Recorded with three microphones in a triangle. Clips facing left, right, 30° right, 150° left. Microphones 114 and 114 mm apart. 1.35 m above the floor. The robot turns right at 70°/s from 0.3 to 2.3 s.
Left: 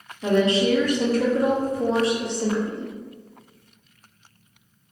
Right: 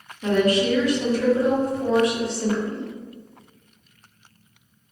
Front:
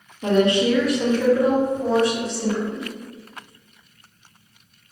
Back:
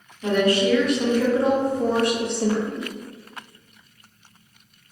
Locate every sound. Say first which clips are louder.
0.2 s a woman speaking: even, front 2 dB; 20° left, 0.6 m; by 2.9 s 160° left, 0.6 m